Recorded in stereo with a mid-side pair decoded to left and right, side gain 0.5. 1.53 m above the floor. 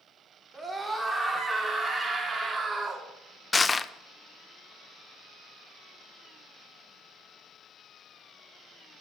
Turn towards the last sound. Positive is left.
turn(degrees=25)